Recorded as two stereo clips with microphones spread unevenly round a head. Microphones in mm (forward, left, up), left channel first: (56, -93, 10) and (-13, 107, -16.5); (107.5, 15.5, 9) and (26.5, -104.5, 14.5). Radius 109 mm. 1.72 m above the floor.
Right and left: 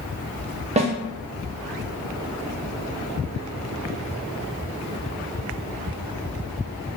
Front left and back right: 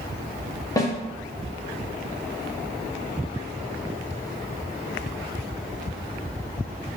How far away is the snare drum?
About 0.6 m.